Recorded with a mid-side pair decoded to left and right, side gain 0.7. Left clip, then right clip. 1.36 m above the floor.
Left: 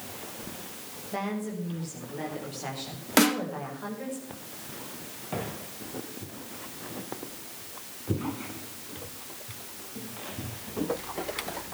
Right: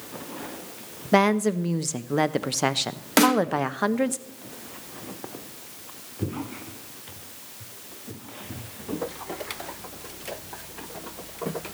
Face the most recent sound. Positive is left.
turn(degrees=-10)